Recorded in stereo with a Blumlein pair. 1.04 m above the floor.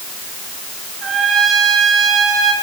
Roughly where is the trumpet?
Ahead right.